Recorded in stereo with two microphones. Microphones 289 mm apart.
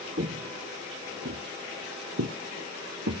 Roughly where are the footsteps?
Right.